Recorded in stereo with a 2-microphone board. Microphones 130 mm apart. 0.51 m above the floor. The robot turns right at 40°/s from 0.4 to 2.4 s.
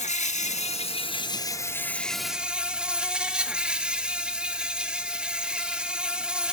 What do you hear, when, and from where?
0.0 s an insect: 110° left, 1.1 m; by 6.5 s 170° right, 1.1 m